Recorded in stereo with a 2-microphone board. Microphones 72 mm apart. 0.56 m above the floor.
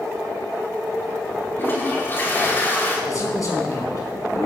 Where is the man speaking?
55° left (ahead or behind), 5.5 m.